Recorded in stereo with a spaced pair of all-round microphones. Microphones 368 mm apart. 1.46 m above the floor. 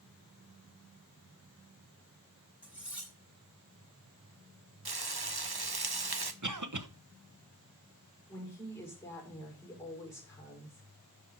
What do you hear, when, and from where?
2.6 s cutlery clinking: 5° right (ahead or behind), 5.5 m
4.8 s frying: 90° right, 1.0 m
6.4 s a cough: 55° right (ahead or behind), 1.2 m
8.3 s a woman speaking: 5° left (ahead or behind), 5.5 m